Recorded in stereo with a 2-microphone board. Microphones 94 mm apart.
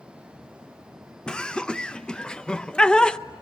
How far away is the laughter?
About 0.5 m.